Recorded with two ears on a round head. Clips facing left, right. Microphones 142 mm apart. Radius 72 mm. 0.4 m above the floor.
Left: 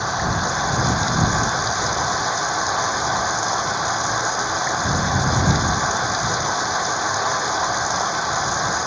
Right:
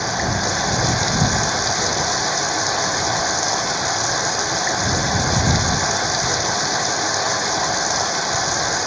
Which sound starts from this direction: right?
Running water, at 0.0 s.